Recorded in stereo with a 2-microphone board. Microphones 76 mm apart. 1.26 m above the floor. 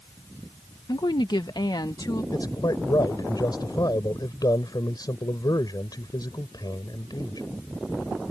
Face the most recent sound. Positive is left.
turn(degrees=60)  # may be behind; listen again after turning